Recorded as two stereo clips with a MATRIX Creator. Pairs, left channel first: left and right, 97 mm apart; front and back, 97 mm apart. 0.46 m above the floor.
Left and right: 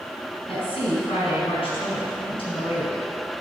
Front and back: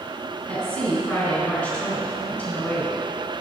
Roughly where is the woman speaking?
Left.